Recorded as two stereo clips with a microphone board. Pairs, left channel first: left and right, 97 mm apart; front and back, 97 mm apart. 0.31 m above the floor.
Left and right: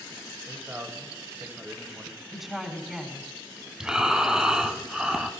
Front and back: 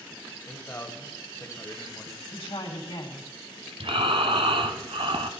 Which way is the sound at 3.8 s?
170° right.